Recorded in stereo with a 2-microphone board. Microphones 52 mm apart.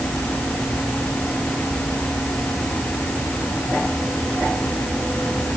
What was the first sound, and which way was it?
Only background noise.